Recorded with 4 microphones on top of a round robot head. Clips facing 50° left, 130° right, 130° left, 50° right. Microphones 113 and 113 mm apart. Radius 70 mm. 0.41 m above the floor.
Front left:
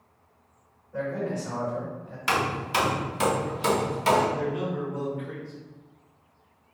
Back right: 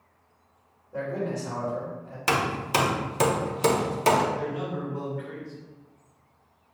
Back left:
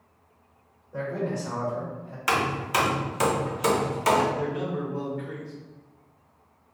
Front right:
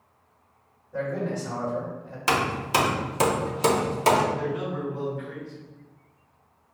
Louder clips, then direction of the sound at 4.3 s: Front left 2 dB, even; 105° left.